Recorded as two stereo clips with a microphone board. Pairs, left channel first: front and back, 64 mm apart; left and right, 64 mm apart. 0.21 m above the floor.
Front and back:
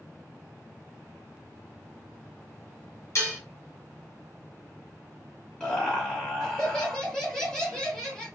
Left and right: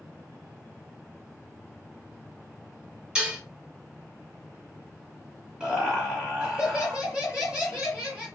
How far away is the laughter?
About 1.4 m.